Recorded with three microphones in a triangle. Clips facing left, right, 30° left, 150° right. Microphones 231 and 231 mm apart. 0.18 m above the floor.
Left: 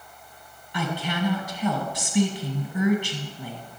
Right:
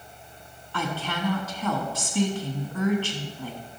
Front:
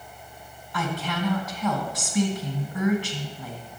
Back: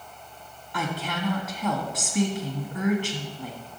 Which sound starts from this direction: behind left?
A woman speaking, at 0.7 s.